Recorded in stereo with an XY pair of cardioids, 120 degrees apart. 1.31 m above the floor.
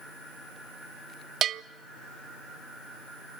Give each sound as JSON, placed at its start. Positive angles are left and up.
{"t": 1.4, "sound": "a bell", "azimuth_deg": -60, "distance_m": 0.6}